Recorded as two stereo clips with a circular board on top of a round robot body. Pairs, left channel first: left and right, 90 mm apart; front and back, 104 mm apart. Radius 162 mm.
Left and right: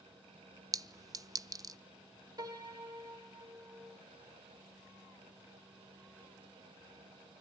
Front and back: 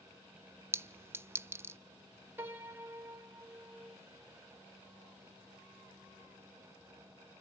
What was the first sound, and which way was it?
A clink, 120° right.